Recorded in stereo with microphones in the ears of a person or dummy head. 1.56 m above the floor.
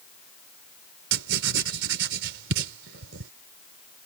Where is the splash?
I don't hear a splash.